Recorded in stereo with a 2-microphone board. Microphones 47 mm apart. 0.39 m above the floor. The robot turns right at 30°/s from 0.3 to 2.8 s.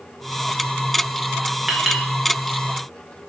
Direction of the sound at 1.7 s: 5° right (ahead or behind).